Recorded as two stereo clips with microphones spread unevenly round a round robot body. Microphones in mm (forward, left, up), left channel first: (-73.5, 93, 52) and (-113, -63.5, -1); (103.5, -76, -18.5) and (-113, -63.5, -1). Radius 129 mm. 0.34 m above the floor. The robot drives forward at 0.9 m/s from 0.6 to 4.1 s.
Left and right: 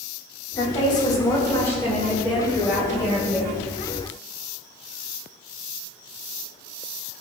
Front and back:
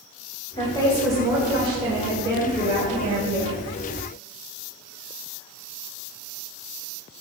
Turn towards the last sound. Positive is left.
turn(degrees=180)